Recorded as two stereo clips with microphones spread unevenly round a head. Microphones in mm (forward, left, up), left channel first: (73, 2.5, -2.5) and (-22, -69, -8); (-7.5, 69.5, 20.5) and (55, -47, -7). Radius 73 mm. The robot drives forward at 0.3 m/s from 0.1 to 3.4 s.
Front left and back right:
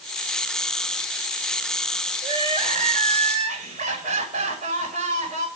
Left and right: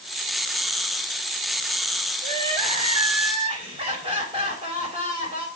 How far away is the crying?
About 3 m.